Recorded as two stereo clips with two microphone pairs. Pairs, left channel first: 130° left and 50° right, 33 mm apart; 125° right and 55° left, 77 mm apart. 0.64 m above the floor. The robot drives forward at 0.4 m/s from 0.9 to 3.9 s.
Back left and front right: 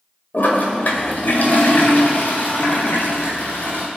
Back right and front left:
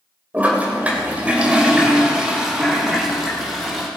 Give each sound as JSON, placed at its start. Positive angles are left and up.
{"t": 0.3, "sound": "a toilet flushing", "azimuth_deg": 125, "distance_m": 2.0}